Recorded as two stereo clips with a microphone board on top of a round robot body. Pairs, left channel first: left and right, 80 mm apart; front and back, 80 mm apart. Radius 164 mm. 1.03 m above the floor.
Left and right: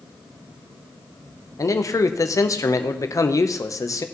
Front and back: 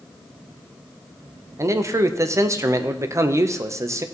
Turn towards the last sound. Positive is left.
turn(degrees=130)